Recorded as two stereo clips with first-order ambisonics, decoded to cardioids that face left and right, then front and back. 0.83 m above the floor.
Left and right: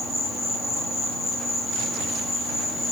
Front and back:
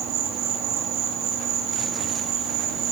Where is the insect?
175° right, 2.5 m.